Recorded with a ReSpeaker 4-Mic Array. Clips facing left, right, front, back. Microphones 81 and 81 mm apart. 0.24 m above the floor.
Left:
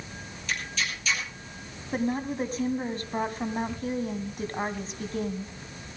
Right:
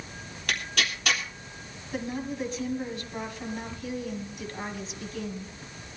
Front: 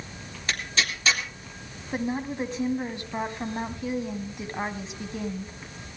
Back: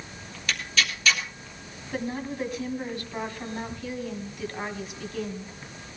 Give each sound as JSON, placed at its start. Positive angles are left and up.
{"t": 0.5, "sound": "tearing paper", "azimuth_deg": -60, "distance_m": 3.0}
{"t": 1.9, "sound": "a woman speaking", "azimuth_deg": 60, "distance_m": 1.9}